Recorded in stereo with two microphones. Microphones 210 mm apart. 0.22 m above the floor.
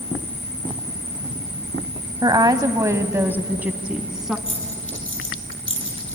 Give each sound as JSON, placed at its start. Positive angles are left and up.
{"t": 2.2, "sound": "a woman speaking", "side_deg": -20, "distance_m": 1.0}
{"t": 4.5, "sound": "a dropped coin", "side_deg": 70, "distance_m": 3.0}